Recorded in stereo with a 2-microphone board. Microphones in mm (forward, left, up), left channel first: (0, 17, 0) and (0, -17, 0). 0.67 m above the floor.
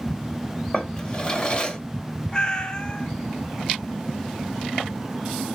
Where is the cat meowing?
25° left (ahead or behind), 0.7 m.